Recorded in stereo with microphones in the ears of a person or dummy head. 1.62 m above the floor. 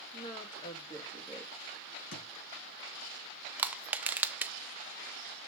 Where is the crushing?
5° right (ahead or behind), 0.6 m.